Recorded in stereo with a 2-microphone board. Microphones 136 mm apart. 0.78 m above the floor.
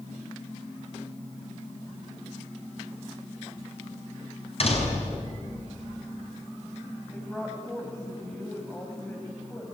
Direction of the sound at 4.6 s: 50° left (ahead or behind).